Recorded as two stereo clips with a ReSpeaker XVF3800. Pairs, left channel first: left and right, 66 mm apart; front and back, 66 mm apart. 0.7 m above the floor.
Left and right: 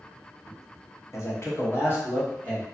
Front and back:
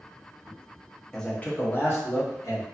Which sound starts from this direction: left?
A man speaking, at 1.1 s.